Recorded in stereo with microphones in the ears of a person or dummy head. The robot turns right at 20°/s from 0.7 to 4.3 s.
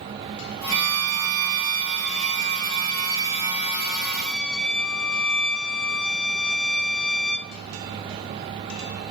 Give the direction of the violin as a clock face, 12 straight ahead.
2 o'clock.